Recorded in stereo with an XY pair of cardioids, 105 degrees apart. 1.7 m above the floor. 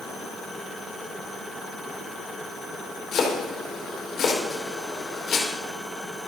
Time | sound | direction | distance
3.1 | chopping | 60° left | 5 m